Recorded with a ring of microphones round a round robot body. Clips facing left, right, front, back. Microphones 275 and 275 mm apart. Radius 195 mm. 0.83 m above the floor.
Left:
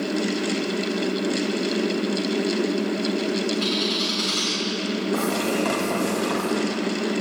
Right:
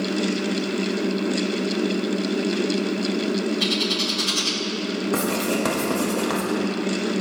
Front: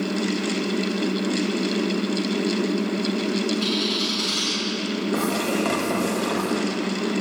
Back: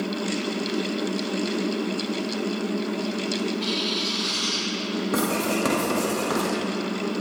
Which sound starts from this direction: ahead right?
A bird, at 3.6 s.